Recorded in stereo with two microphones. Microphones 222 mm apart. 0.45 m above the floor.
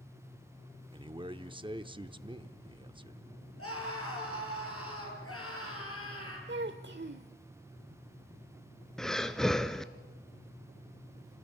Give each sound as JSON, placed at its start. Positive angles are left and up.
{"t": 0.9, "sound": "a man speaking", "side_deg": -20, "distance_m": 0.7}
{"t": 3.6, "sound": "a scream", "side_deg": 85, "distance_m": 9.0}
{"t": 6.5, "sound": "a child speaking", "side_deg": -55, "distance_m": 0.9}
{"t": 9.0, "sound": "breathing", "side_deg": 0, "distance_m": 0.9}